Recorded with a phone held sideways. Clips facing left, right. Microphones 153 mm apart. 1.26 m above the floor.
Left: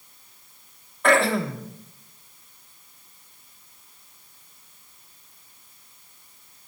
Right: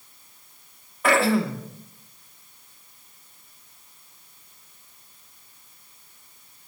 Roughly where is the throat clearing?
Centre.